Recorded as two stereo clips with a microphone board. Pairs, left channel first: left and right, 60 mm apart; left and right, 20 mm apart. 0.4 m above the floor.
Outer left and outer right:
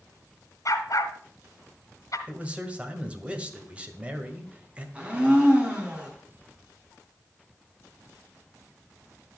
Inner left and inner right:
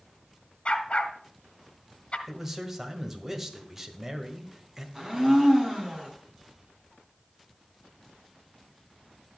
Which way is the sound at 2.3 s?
20° right (ahead or behind).